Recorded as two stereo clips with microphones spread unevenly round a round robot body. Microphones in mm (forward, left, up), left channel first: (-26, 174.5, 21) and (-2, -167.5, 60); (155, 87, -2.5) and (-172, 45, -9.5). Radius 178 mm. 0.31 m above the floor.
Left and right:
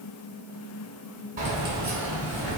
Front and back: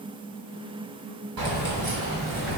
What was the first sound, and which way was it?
Keys jangling, 155° right.